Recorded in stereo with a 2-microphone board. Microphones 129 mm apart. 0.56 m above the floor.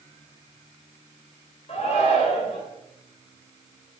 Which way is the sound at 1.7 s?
60° left (ahead or behind).